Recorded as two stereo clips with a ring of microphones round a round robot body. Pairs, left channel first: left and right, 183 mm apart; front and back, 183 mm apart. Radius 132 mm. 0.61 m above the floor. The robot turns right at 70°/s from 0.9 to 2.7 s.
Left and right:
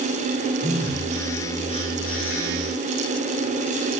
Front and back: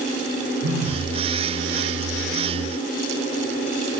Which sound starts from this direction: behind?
A phone buzzing, at 0.6 s.